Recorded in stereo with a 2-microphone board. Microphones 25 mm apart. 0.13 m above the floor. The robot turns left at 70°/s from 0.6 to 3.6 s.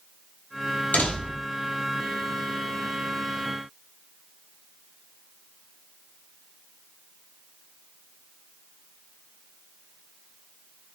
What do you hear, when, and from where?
0.9 s a door slam: 85° left, 2 m; by 1.5 s 50° left, 2 m